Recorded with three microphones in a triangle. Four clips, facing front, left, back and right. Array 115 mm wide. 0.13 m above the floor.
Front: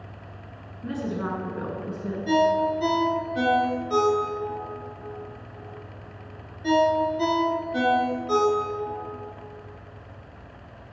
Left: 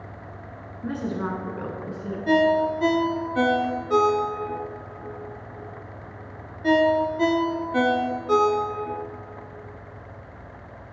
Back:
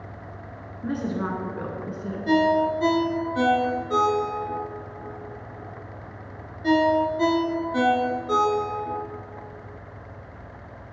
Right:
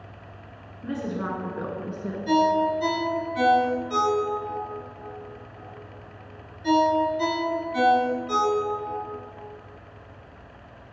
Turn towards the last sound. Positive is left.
turn(degrees=100)